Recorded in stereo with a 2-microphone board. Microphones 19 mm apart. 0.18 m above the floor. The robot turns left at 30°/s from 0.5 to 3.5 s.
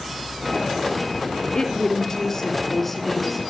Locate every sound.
1.6 s a woman speaking: 50° left, 4 m; by 3.4 s 5° right, 4 m